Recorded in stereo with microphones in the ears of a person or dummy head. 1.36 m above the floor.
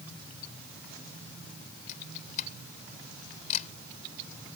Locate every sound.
1.9 s a camera shutter: 45° left (ahead or behind)